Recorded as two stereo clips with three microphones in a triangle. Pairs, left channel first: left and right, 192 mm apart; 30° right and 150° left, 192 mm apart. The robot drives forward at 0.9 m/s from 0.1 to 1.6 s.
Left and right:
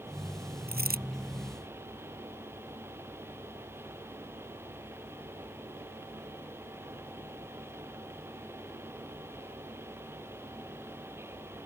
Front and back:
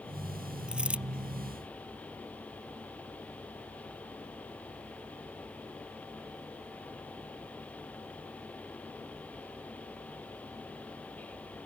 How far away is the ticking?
No ticking in this recording.